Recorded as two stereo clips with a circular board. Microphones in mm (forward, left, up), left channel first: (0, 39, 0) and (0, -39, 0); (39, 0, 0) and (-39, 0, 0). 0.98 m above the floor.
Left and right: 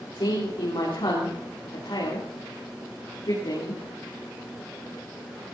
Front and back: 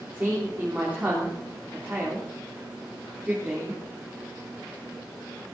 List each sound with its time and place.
0.1 s a woman speaking: 115° left, 3 m